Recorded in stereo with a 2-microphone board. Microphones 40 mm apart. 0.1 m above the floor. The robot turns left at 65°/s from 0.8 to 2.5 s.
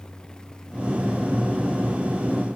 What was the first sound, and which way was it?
Only background noise.